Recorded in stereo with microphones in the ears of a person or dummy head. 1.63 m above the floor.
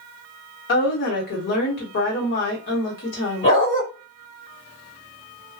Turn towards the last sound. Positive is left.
turn(degrees=25)  # may be behind; listen again after turning